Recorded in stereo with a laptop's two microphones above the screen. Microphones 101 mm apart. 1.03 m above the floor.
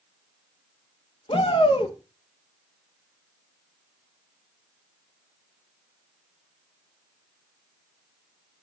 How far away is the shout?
About 1.0 m.